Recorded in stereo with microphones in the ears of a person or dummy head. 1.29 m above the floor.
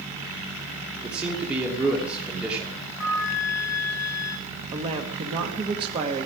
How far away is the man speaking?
About 3 m.